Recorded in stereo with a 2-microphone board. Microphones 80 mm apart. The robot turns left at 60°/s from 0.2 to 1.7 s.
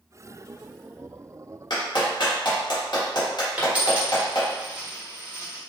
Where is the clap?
55° left (ahead or behind), 1.4 m.